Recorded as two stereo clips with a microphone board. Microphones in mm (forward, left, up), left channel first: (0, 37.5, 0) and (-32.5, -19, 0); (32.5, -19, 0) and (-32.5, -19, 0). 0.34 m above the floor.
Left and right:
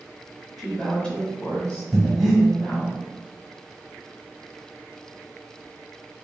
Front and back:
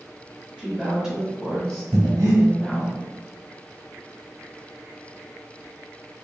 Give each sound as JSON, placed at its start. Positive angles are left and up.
{"t": 0.6, "sound": "a woman speaking", "azimuth_deg": 150, "distance_m": 1.0}
{"t": 1.9, "sound": "breathing", "azimuth_deg": 150, "distance_m": 1.0}